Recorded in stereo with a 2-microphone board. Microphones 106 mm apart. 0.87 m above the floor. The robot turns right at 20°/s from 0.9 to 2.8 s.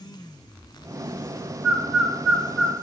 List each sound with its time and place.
1.6 s a bird: centre (ahead or behind), 1.2 m; by 2.7 s 20° left (ahead or behind), 1.2 m